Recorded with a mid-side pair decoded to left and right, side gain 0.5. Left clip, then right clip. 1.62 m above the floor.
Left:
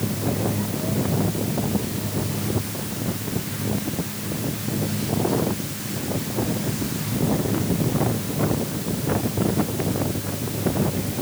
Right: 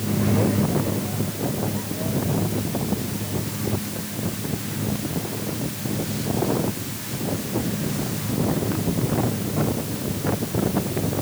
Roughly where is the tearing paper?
No tearing paper in this recording.